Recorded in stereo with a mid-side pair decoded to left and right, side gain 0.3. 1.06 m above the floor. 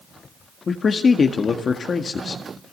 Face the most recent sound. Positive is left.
turn(degrees=60)